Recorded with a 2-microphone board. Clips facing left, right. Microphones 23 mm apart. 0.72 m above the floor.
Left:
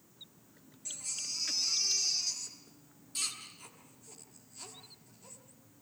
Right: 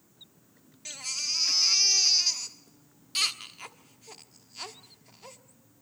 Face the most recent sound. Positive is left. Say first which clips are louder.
# right 8 dB
turn(degrees=-55)  # may be behind; listen again after turning